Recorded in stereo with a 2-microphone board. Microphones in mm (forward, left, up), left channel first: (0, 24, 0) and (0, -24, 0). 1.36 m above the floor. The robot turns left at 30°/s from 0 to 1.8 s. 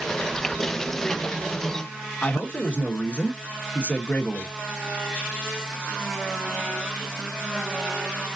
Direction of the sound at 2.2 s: 25° left (ahead or behind).